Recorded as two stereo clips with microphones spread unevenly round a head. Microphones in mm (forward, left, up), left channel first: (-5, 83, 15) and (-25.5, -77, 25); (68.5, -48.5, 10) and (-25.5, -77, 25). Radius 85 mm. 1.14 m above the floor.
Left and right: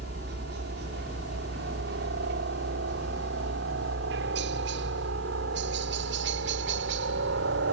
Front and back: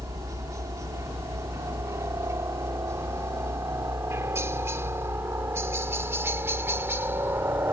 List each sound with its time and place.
0.0 s a helicopter: 110° right; by 7.7 s 95° right